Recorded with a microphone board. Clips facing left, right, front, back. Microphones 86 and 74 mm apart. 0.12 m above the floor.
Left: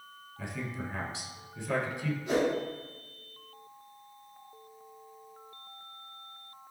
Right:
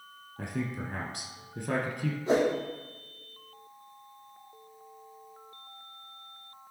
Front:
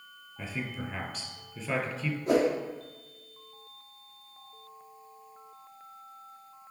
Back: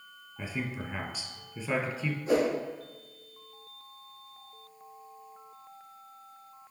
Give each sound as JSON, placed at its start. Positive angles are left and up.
{"t": 0.4, "sound": "a man speaking", "azimuth_deg": -100, "distance_m": 2.0}
{"t": 2.3, "sound": "a whoosh", "azimuth_deg": -35, "distance_m": 3.5}